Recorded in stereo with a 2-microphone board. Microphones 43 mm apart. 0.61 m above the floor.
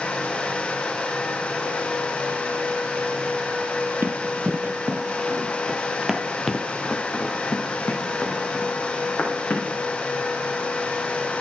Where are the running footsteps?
50° right (ahead or behind), 1.3 m; by 9.7 s 30° left (ahead or behind), 3 m.